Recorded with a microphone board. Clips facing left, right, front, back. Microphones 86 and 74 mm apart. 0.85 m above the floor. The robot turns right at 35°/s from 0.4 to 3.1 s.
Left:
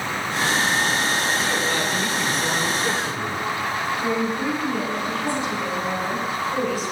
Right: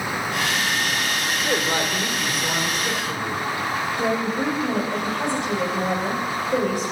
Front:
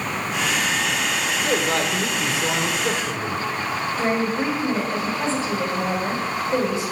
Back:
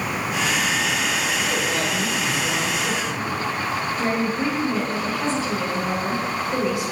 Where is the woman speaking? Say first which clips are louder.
Right 2 dB, front 2 dB; 60° right, 5 m.